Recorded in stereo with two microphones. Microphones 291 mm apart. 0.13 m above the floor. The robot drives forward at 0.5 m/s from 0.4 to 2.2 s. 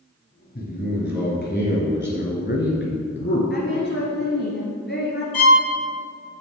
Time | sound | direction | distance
0.6 | a man speaking | 30° left (ahead or behind) | 2 m
3.5 | a woman speaking | 40° left (ahead or behind) | 1.4 m
5.3 | a violin | 40° left (ahead or behind) | 1.2 m